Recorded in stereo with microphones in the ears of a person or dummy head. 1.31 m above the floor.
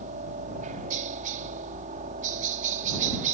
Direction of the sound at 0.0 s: 40° right (ahead or behind).